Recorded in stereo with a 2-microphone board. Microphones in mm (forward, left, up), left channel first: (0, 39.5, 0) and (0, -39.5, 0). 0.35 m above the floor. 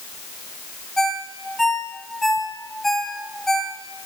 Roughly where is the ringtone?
Centre.